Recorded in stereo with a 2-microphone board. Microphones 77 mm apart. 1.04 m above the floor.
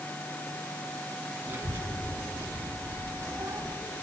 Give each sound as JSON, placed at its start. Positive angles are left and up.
{"t": 1.5, "sound": "a child speaking", "side_deg": -25, "distance_m": 5.5}